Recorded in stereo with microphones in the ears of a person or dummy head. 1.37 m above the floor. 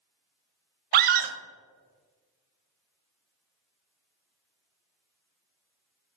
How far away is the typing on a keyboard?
I don't hear typing on a keyboard.